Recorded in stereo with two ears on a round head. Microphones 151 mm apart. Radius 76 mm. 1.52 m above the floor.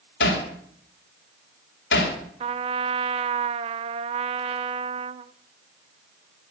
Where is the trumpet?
35° right (ahead or behind), 0.6 m.